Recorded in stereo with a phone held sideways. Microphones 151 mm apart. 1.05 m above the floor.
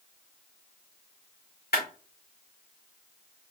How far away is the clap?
About 2.5 m.